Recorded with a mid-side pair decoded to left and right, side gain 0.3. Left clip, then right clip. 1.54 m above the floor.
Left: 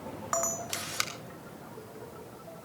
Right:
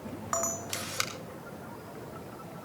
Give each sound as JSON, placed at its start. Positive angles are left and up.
{"t": 0.3, "sound": "a camera shutter", "azimuth_deg": 5, "distance_m": 3.0}